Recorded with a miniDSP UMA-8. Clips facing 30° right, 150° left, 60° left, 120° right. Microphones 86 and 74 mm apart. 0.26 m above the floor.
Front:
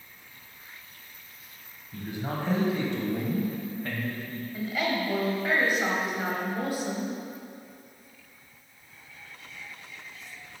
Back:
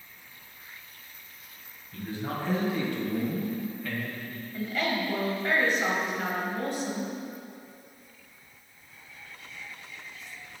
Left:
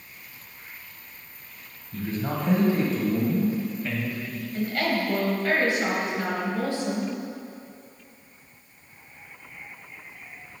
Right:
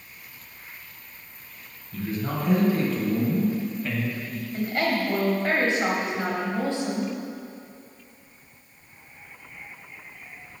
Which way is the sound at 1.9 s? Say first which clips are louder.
Even, even; 35° left.